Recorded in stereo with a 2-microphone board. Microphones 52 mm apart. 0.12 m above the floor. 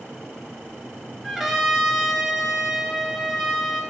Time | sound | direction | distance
1.2 | a trumpet | 5° right (ahead or behind) | 2 m